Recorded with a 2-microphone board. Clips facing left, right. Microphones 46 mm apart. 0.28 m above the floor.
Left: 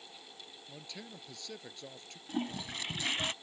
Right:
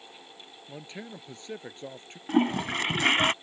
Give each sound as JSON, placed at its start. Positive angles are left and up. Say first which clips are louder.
{"t": 0.7, "sound": "a man speaking", "louder": "right 8 dB", "side_deg": -35}
{"t": 2.3, "sound": "a toilet flushing", "louder": "right 13 dB", "side_deg": -60}